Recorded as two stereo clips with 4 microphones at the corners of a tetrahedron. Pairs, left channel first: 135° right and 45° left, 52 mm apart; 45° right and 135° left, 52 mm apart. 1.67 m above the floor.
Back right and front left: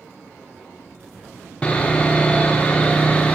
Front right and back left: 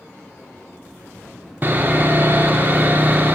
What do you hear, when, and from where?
1.6 s sawing: 170° left, 0.5 m